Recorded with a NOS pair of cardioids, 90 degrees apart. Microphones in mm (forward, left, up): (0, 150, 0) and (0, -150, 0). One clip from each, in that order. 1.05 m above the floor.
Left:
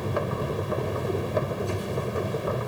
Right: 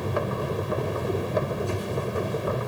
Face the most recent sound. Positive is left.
turn(degrees=-5)